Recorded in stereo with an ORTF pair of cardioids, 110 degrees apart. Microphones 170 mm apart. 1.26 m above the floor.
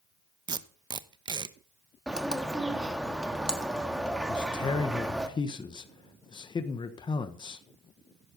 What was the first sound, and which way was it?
Tape being pulled, 25° right.